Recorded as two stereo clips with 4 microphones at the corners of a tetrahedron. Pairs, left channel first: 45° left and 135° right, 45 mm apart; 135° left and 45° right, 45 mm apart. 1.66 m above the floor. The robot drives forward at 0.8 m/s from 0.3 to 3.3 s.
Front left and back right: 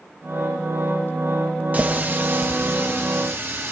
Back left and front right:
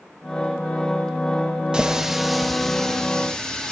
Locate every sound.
1.7 s a running tap: 105° right, 1.1 m; by 3.7 s 155° right, 1.8 m